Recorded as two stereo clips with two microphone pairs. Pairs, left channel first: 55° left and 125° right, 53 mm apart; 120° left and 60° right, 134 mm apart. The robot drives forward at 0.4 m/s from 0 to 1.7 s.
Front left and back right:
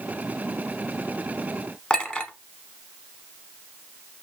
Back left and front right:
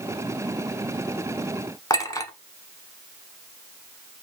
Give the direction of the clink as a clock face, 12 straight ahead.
8 o'clock.